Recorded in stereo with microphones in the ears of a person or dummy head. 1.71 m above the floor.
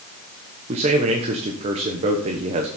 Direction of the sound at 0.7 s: 30° right (ahead or behind).